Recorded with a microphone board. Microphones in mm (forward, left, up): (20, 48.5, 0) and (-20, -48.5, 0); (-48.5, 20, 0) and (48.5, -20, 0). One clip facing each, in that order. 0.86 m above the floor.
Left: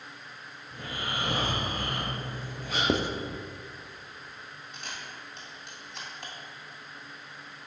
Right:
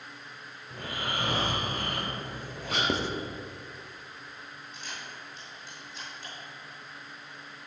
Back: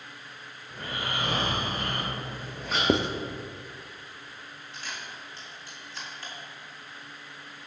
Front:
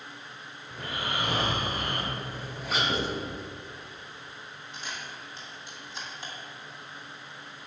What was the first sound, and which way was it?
Snoring, 110° right.